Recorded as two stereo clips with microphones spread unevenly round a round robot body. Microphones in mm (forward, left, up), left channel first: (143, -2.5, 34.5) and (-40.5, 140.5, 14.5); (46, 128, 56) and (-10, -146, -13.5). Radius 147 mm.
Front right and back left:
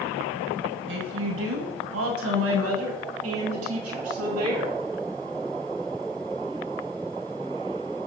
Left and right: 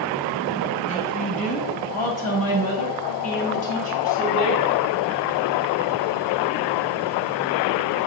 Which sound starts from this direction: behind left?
A woman speaking, at 0.9 s.